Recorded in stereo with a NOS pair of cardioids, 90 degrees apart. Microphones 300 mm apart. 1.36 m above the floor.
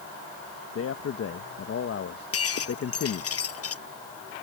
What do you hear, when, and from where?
0.8 s a man speaking: 50° left
2.3 s breaking glass: 50° left